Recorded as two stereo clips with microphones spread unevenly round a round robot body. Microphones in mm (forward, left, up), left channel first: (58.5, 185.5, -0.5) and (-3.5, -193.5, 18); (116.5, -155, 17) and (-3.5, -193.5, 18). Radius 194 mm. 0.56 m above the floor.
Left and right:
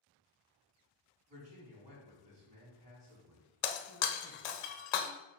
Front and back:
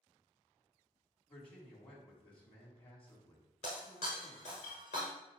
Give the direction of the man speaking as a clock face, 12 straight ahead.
1 o'clock.